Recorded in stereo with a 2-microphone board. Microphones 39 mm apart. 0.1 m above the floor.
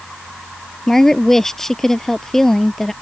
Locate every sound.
0.9 s a woman speaking: 10° left (ahead or behind)